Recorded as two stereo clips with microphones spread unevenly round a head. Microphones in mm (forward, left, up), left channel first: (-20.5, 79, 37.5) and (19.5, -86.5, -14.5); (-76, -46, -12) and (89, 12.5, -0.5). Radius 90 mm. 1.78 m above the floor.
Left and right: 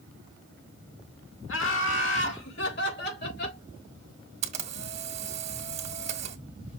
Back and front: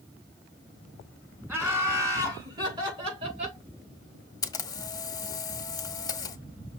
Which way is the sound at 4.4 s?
115° right.